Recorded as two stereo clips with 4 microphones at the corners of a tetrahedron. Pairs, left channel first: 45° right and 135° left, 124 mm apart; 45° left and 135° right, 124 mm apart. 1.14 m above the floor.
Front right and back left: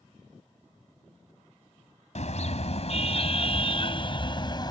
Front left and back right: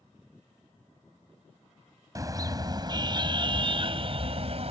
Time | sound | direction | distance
2.1 | a car horn | 70° right | ?